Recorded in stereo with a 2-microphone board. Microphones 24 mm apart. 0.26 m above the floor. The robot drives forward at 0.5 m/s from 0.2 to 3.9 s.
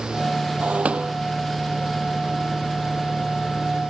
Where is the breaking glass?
80° right; by 1.1 s 75° right (ahead or behind).